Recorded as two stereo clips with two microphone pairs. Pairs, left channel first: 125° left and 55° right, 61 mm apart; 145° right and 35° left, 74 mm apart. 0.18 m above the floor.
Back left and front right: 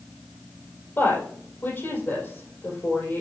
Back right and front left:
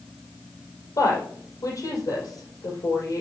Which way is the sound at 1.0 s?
Straight behind.